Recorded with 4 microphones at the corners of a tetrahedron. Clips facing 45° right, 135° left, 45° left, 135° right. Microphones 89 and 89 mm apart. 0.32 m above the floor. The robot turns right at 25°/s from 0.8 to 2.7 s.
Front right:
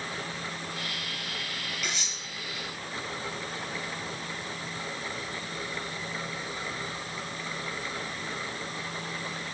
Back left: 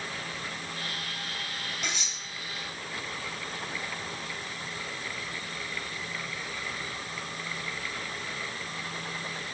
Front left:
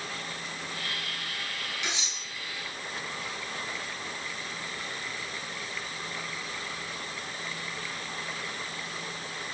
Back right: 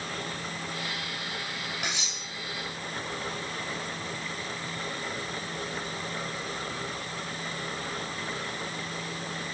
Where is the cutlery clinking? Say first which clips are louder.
Even, back right 1 dB; straight behind, 3.5 m; by 2.2 s 170° right, 3.5 m.